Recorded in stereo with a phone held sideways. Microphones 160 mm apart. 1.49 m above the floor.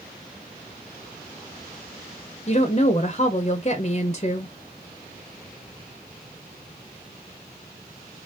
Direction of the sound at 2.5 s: 45° left (ahead or behind).